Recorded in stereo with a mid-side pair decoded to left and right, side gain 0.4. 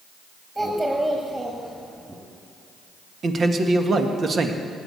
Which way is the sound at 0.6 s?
15° right.